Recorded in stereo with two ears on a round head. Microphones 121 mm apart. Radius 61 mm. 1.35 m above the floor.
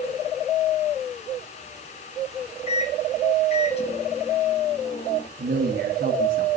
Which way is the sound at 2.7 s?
45° left (ahead or behind).